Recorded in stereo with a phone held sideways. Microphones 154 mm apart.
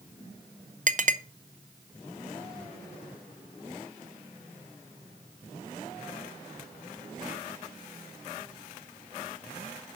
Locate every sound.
0.9 s a clink: 55° right (ahead or behind), 0.5 m